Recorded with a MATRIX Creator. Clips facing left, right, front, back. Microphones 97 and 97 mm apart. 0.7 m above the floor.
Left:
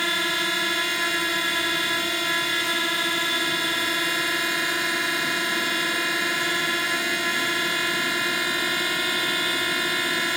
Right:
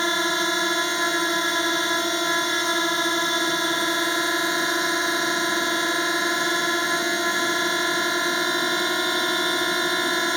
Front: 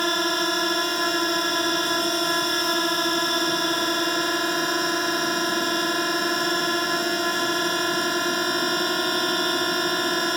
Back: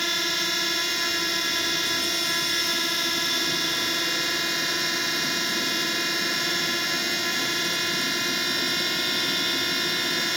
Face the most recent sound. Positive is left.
turn(degrees=-30)